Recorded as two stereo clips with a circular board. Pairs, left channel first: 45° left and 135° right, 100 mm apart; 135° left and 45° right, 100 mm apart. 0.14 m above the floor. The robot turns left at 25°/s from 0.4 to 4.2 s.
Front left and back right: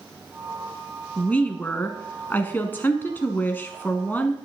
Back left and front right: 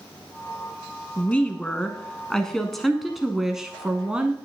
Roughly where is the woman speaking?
Left.